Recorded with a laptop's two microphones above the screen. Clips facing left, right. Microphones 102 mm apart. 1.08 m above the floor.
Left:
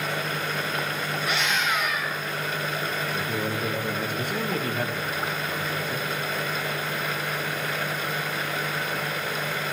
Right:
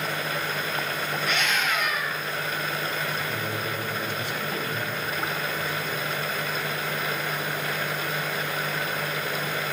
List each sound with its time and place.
1.2 s a scream: 15° left (ahead or behind), 6 m
3.1 s a man speaking: 45° left (ahead or behind), 1.2 m